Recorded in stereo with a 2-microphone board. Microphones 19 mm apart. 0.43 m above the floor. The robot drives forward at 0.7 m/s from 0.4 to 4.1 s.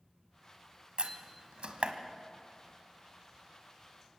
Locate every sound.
1.0 s a door slam: 70° right (ahead or behind), 1.6 m; by 1.9 s 75° right (ahead or behind), 1.6 m